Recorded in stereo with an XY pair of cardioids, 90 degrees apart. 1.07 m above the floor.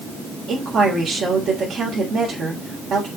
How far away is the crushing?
No crushing in this recording.